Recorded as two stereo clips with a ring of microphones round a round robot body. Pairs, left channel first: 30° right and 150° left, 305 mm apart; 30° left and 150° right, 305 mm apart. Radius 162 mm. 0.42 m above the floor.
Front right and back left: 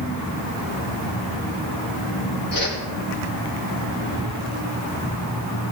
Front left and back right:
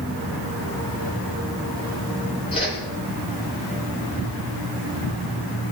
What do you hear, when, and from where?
2.5 s a whoosh: 45° right, 9.5 m